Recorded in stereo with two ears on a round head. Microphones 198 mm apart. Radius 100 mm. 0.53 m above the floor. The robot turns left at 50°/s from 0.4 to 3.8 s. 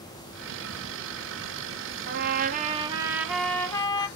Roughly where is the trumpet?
Behind right.